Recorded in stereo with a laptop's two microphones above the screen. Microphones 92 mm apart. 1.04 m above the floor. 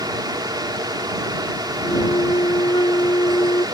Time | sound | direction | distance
0.0 | a fan | 55° right (ahead or behind) | ?
1.8 | a flute | 65° left (ahead or behind) | ?